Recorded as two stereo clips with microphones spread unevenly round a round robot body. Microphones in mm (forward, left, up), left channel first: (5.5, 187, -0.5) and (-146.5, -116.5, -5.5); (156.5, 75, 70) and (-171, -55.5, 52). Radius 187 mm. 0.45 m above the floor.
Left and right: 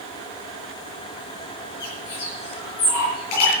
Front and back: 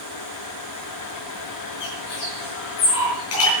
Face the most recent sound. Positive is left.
turn(degrees=75)